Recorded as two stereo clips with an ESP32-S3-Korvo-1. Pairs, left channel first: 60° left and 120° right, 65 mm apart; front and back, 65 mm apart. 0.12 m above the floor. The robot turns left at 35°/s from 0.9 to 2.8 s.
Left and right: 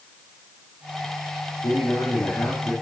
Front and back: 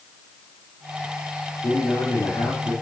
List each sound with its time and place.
1.6 s a man speaking: 50° left, 3 m; by 2.7 s 10° left, 3 m